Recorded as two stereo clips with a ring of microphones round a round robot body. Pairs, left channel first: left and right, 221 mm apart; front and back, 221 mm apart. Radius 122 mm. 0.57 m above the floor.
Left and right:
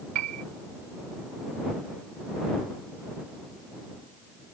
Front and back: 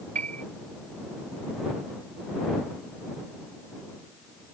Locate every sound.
0.1 s a piano: 115° right